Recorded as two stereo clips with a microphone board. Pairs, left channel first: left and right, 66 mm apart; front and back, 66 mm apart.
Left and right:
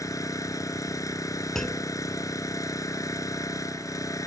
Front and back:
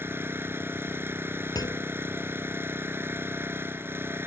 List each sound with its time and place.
0.0 s an engine running: 125° left
1.6 s a clunk: 5° left